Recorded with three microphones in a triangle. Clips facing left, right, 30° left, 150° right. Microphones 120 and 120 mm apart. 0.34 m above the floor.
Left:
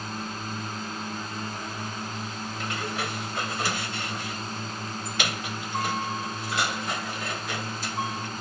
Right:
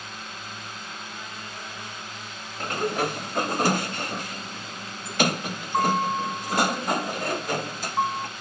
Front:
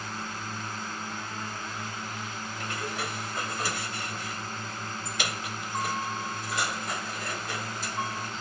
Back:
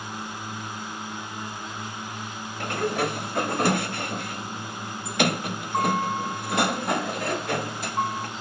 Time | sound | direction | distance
0.0 | a drone | 135° left | ?
2.6 | a sliding door | 130° right | ?